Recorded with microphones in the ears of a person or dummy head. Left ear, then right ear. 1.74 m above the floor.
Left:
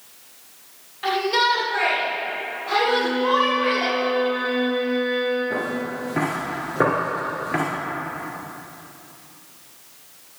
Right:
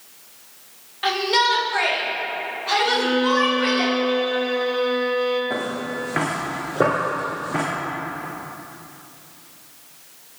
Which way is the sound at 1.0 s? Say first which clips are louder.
Right 1 dB; 15° right (ahead or behind).